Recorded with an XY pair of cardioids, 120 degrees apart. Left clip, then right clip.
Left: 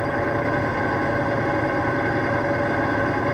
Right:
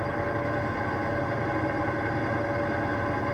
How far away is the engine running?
About 1.2 m.